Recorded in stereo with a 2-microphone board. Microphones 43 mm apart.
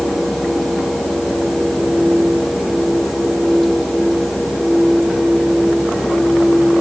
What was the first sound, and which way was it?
Only background noise.